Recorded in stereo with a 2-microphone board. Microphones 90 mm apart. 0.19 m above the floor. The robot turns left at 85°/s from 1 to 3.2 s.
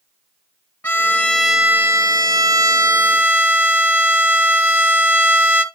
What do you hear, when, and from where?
0.8 s a violin: 30° left, 1.5 m; by 5.6 s 155° right, 1.5 m